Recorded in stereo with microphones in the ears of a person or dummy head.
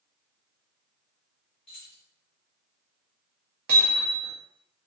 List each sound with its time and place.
1.7 s keys jangling: 30° left (ahead or behind), 0.8 m
3.7 s hammering: 50° right (ahead or behind), 0.8 m